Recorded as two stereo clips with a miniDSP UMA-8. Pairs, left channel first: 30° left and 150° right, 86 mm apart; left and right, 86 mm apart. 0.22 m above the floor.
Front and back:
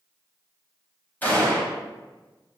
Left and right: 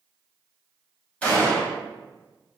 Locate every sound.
1.2 s a gunshot: 45° left, 1.2 m